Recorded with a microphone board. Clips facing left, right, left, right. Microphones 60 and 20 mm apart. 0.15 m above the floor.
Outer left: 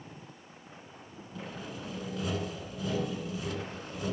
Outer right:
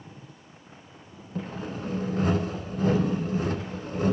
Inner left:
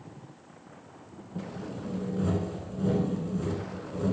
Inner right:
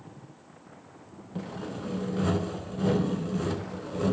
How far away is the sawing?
About 0.9 m.